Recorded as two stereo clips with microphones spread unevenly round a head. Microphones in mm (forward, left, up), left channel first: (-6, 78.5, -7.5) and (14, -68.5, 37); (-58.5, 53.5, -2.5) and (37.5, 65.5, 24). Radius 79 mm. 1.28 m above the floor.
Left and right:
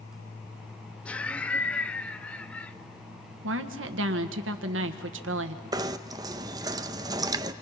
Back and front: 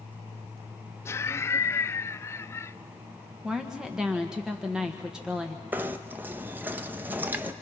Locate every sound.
1.1 s laughter: 160° left, 0.6 m
3.4 s a woman speaking: 80° right, 1.4 m
5.7 s knocking: 45° right, 0.5 m